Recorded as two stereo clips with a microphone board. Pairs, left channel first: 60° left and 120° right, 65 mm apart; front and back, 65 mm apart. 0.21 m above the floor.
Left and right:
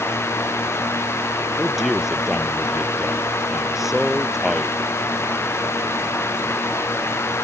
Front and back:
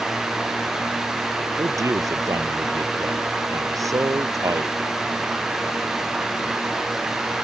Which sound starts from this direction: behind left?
A man speaking, at 1.6 s.